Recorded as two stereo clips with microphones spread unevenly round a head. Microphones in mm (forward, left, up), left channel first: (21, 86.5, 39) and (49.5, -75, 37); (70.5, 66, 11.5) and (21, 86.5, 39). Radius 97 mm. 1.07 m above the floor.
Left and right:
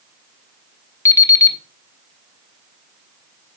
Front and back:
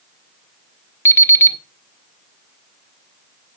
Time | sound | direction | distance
1.1 | an alarm clock | 30° left | 1.3 m